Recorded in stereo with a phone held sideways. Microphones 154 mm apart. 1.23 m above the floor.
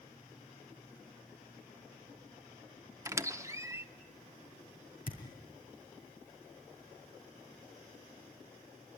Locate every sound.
3.0 s a squeak: 20° right (ahead or behind), 0.8 m
5.1 s a thud: 70° left (ahead or behind), 4 m